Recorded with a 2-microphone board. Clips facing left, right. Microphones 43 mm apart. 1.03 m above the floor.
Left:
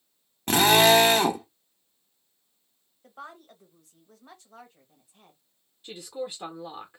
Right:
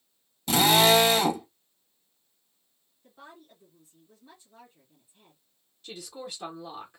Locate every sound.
0.5 s a drill: 50° left (ahead or behind), 1.2 m
3.0 s a woman speaking: 70° left (ahead or behind), 1.2 m
5.8 s a woman speaking: 15° left (ahead or behind), 0.8 m